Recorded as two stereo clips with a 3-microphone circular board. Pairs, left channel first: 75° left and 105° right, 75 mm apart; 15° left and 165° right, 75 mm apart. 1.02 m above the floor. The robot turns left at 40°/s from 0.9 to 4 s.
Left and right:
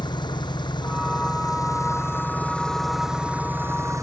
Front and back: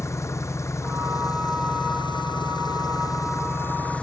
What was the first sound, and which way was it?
An engine running, 65° left.